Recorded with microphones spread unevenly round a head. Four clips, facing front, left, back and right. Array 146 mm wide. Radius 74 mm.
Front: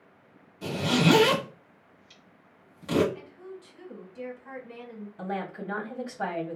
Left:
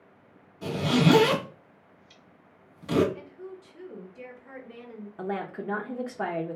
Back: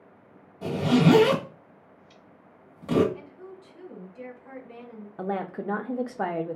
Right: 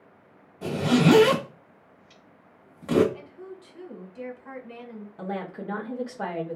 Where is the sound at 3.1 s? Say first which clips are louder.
Even, even; 70° right, 1.4 m.